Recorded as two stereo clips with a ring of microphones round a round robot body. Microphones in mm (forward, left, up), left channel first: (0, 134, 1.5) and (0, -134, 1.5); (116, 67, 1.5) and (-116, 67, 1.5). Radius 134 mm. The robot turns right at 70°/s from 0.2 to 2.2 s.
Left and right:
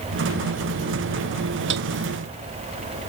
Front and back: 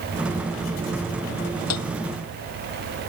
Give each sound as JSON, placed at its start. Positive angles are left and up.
{"t": 1.7, "sound": "a piano", "azimuth_deg": -40}